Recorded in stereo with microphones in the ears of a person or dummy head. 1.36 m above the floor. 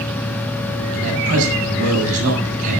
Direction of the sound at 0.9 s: 50° right (ahead or behind).